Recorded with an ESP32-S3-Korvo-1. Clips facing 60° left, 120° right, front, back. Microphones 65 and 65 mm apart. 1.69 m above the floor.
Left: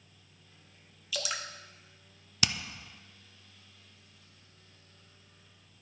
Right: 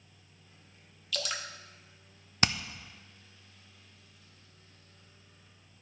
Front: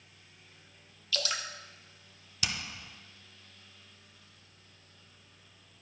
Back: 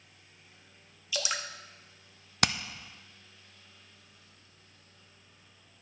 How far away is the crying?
I don't hear crying.